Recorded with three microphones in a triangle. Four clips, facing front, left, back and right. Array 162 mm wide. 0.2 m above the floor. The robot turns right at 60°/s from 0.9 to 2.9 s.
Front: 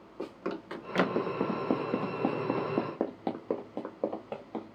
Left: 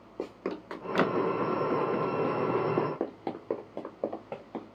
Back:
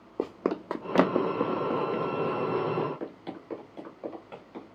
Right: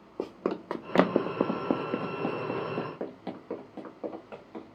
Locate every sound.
0.2 s running footsteps: 170° right, 0.7 m; by 4.8 s 45° left, 2 m